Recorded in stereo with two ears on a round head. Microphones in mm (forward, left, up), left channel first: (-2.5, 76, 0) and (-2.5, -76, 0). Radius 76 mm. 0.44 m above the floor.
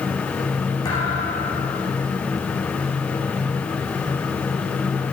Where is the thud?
20° left (ahead or behind), 9 m.